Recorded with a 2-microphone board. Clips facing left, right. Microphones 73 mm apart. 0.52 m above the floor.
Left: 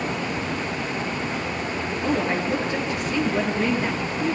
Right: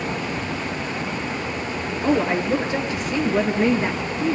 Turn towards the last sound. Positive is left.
turn(degrees=-20)  # may be behind; listen again after turning